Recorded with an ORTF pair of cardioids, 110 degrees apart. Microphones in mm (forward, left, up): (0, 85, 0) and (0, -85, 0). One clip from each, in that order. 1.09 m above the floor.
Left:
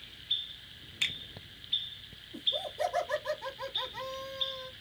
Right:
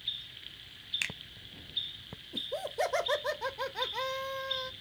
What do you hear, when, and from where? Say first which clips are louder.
1.0 s a finger snap: left 5 dB; 25° right, 0.8 m
2.3 s laughter: left 2 dB; 60° right, 1.3 m